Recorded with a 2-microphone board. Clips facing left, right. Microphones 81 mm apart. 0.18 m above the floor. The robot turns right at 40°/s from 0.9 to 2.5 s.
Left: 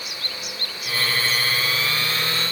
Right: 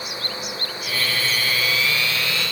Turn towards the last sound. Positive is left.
No sound to turn to.